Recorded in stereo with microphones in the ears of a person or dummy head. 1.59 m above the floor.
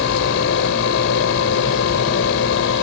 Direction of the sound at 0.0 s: 80° left.